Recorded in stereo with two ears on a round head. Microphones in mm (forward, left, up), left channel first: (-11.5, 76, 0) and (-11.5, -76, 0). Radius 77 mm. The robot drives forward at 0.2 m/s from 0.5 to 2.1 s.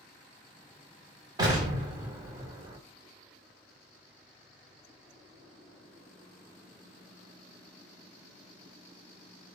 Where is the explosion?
25° right (ahead or behind), 1.0 m.